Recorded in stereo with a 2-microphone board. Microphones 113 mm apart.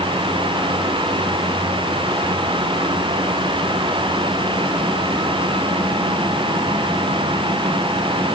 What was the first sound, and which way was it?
Only background noise.